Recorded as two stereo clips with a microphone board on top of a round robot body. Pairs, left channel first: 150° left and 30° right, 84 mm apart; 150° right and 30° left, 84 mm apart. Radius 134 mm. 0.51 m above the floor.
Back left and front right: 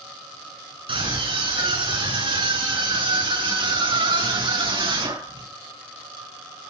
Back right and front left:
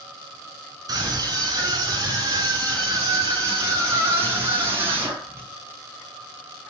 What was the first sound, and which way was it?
A scream, 15° right.